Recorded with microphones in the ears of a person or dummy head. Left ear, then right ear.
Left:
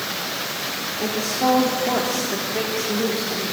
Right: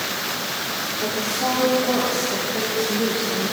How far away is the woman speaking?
About 3.5 m.